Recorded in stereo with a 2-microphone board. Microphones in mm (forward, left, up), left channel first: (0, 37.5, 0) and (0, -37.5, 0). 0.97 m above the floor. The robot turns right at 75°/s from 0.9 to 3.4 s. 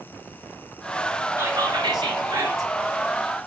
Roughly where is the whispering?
Behind right.